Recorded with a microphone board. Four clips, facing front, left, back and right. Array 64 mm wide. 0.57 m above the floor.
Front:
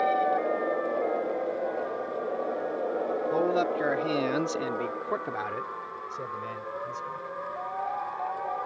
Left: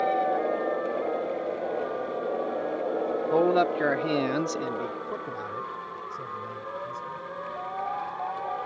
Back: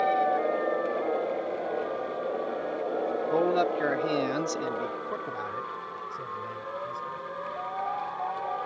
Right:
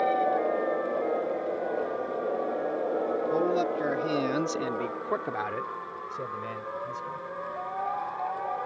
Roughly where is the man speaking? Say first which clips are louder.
Left 7 dB, back 2 dB; left.